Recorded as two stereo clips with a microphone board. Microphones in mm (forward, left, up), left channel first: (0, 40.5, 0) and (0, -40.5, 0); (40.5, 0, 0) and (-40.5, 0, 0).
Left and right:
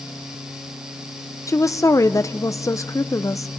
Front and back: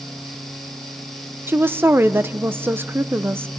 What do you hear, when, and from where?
1.5 s a woman speaking: 125° left, 0.6 m